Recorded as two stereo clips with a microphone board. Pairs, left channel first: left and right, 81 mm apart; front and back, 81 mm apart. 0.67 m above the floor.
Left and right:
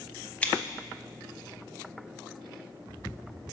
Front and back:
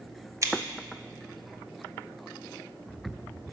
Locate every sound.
0.4 s scissors: 155° left, 0.6 m